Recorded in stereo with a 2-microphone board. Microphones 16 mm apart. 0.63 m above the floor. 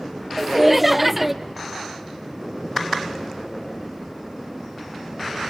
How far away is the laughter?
About 0.6 m.